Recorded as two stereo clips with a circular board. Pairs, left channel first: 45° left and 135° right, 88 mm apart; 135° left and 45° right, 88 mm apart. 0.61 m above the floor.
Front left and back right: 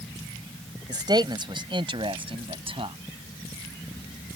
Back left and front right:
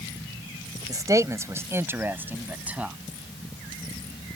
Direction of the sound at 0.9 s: 95° right.